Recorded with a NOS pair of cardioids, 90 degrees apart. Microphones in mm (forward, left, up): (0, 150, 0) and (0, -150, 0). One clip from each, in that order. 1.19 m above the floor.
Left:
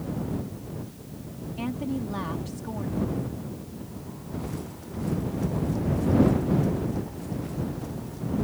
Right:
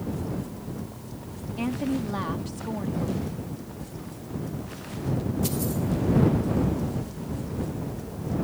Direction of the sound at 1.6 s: 15° right.